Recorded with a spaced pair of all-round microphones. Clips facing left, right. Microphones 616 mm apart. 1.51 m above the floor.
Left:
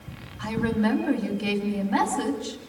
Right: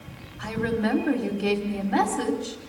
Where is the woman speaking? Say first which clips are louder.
Left 1 dB; 30° left (ahead or behind), 4 m.